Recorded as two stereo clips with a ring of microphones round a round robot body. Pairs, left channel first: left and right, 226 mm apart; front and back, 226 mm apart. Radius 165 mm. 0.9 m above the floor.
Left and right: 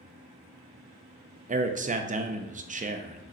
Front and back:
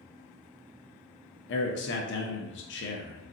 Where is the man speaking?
35° right, 0.6 m.